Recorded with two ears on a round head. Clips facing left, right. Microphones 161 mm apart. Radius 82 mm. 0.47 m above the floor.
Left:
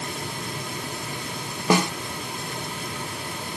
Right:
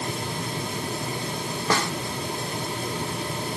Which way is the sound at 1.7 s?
15° left (ahead or behind).